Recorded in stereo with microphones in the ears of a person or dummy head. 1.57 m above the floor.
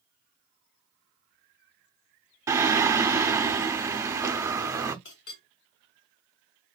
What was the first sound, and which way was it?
Singing, 15° right (ahead or behind).